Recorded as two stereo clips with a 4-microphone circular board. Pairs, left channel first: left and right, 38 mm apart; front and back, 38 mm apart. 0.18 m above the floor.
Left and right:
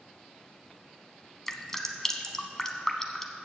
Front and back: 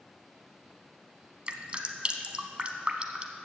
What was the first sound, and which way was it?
Dripping, 155° left.